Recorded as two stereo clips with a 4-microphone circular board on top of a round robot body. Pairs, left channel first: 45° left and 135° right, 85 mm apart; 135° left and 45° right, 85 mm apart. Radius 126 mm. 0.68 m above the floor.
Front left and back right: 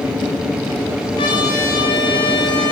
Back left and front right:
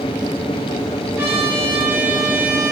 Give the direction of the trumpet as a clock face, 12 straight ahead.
11 o'clock.